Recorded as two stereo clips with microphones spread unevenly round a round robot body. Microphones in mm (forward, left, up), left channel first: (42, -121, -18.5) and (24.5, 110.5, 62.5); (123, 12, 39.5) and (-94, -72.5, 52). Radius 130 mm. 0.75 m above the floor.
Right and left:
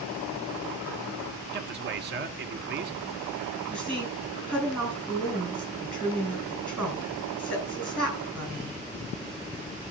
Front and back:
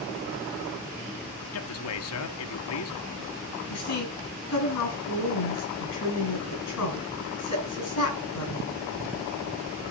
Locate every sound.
1.5 s a man speaking: 40° left, 1.2 m
3.7 s a woman speaking: straight ahead, 8 m